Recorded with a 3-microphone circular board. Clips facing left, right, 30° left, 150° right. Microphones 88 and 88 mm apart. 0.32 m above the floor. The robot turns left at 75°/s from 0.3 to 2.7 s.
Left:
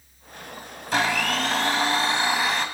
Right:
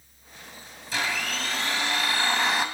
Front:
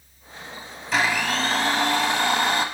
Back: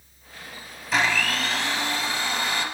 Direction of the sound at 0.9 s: 120° left.